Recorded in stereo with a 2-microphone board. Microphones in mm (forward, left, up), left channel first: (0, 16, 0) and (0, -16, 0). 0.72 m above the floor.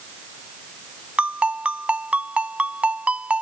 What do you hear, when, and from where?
1.2 s a ringtone: 40° right (ahead or behind)